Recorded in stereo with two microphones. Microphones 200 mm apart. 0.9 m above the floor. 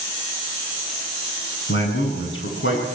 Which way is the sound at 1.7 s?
80° left.